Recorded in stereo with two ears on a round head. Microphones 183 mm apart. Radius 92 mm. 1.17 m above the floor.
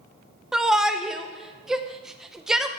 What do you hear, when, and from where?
0.5 s a shout: 5° right (ahead or behind), 0.9 m